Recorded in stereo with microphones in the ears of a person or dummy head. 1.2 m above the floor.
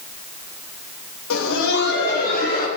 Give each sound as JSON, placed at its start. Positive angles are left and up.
{"t": 1.3, "sound": "laughter", "side_deg": 65, "distance_m": 1.3}